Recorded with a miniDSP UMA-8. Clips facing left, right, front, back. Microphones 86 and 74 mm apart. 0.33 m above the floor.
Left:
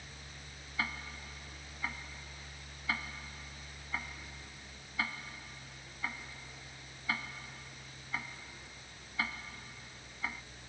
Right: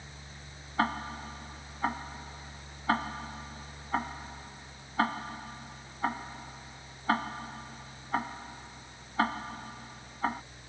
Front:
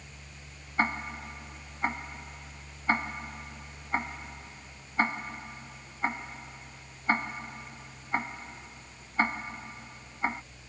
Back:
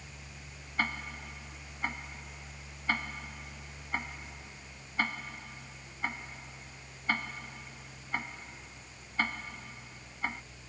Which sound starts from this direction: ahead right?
Ticking, at 0.8 s.